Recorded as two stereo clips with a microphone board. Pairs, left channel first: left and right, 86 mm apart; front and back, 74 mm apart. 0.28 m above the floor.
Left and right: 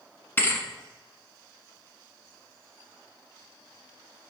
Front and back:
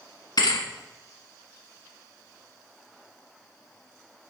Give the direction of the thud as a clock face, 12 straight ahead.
11 o'clock.